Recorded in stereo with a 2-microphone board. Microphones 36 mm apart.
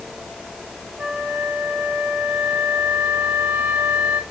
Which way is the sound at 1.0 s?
75° right (ahead or behind).